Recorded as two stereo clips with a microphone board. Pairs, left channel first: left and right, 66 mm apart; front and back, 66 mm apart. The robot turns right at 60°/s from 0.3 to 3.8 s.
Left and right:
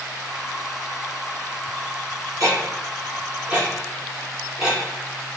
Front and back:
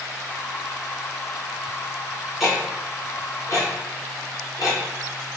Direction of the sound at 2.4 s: 90° right.